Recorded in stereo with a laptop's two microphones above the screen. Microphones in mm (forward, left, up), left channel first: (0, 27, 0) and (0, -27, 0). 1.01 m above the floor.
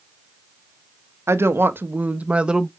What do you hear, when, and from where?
1.3 s a woman speaking: 50° right (ahead or behind), 1.2 m; by 2.7 s 10° right (ahead or behind), 1.0 m